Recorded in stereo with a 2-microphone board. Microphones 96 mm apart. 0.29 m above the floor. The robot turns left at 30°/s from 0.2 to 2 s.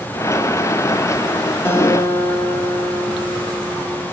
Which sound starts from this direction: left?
A guitar, at 1.6 s.